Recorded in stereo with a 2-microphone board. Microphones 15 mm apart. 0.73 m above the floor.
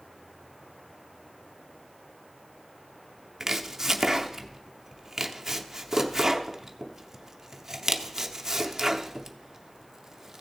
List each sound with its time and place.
3.4 s chopping: 30° right (ahead or behind), 0.6 m